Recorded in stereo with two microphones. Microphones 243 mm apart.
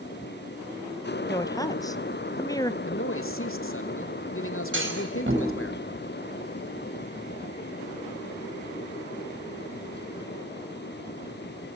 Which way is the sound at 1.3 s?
15° left (ahead or behind).